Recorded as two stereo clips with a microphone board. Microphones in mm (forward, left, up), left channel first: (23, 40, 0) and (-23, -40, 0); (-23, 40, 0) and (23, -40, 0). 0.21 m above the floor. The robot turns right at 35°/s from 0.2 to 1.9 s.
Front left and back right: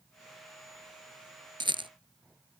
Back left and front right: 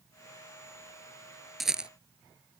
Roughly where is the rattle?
Behind right.